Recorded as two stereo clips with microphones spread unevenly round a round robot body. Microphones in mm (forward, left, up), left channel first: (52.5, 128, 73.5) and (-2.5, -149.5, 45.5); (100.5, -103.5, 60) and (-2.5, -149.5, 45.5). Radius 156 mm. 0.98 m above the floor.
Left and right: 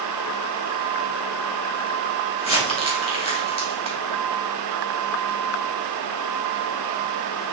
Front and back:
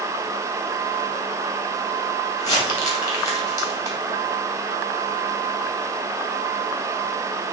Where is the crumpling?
10° left, 2.5 m.